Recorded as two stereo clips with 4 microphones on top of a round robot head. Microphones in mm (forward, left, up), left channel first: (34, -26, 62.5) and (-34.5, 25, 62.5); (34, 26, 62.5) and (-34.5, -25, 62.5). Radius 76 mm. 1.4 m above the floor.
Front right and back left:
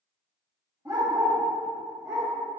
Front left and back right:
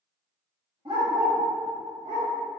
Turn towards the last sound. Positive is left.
turn(degrees=-175)